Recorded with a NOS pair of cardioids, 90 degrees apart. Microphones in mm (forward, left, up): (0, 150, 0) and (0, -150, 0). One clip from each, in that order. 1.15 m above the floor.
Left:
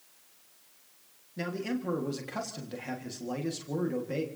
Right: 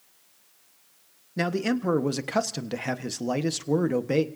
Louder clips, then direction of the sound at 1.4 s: Right 8 dB; 60° right.